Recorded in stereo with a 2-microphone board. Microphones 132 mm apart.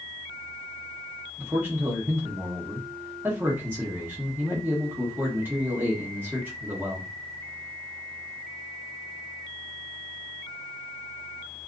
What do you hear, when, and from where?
1.4 s a man speaking: 15° right (ahead or behind), 0.9 m